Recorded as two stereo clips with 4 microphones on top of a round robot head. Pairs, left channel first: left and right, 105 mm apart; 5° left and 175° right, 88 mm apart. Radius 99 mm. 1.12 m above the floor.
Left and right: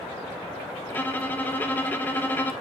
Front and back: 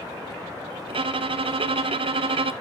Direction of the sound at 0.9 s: 165° left.